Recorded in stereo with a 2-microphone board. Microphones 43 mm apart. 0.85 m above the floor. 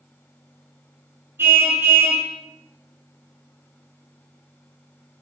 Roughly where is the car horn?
Right.